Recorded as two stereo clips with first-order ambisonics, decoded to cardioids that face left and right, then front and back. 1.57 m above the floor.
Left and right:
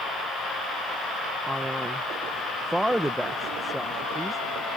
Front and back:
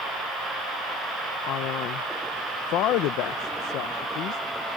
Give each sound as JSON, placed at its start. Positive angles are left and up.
{"t": 1.5, "sound": "a man speaking", "azimuth_deg": -5}